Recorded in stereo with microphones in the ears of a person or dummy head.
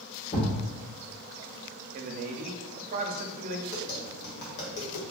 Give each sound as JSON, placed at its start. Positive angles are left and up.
{"t": 0.3, "sound": "a thud", "side_deg": 50, "distance_m": 1.6}
{"t": 1.9, "sound": "a man speaking", "side_deg": -35, "distance_m": 0.5}
{"t": 3.7, "sound": "tapping", "side_deg": 65, "distance_m": 1.3}